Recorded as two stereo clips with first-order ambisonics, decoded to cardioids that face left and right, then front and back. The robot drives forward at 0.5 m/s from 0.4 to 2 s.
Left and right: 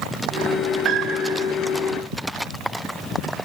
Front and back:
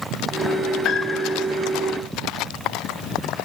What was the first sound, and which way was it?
A piano, 45° right.